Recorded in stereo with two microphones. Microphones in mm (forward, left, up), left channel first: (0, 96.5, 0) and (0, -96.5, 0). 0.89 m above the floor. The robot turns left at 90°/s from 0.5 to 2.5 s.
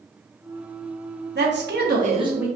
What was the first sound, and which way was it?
A woman speaking, 70° right.